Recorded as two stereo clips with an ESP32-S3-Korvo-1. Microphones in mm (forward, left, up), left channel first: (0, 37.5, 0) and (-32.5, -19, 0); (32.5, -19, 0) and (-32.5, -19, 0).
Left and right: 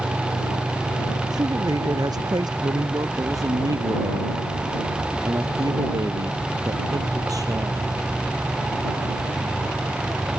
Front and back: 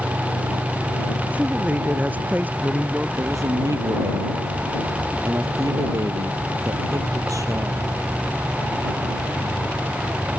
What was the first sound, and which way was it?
A man speaking, 115° right.